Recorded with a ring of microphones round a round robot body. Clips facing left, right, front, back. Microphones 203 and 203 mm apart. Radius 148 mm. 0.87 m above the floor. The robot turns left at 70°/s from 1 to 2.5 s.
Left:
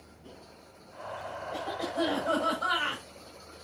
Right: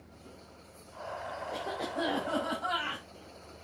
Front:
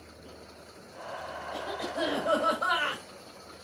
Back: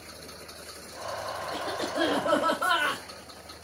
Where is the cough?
160° right, 4 m; by 3.0 s 130° left, 4 m.